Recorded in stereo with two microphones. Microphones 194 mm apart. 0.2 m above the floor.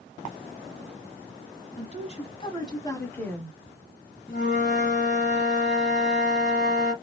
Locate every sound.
1.8 s a woman speaking: 40° left (ahead or behind), 1.5 m; by 3.6 s centre (ahead or behind), 1.4 m
4.3 s a flute: 50° left (ahead or behind), 1.6 m